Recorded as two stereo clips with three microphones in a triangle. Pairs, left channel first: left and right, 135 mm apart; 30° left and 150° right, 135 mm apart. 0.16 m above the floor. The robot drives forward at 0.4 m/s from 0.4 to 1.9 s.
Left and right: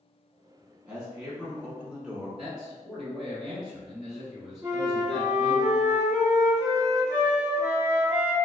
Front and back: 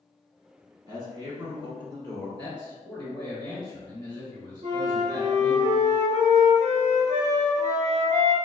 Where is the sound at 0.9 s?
165° right, 1.1 m; by 2.3 s 170° right, 1.3 m.